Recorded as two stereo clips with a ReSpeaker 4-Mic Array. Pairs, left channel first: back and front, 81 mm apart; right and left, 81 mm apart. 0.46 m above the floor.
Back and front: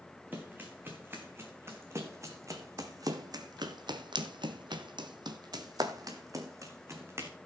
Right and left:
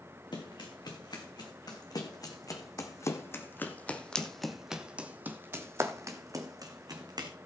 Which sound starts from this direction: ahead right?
Running footsteps, at 0.3 s.